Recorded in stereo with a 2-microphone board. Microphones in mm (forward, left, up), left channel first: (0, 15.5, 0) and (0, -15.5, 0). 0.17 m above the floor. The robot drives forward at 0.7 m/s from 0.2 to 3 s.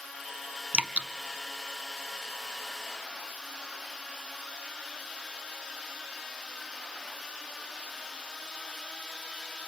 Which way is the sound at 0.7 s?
45° right (ahead or behind).